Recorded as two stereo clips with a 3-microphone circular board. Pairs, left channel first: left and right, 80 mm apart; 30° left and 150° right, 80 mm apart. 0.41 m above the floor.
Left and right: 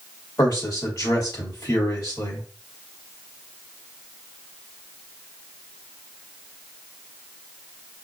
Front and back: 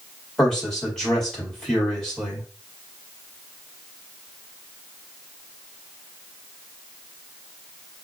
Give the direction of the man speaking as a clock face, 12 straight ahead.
8 o'clock.